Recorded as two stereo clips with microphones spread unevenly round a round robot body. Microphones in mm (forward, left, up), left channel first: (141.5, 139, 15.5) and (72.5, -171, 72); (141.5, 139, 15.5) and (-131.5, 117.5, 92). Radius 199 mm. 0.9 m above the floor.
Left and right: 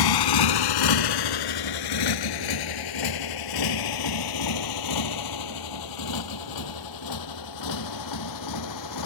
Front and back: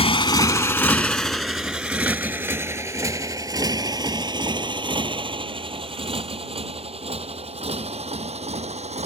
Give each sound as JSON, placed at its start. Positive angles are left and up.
{"t": 0.0, "sound": "a motorcycle", "azimuth_deg": 80}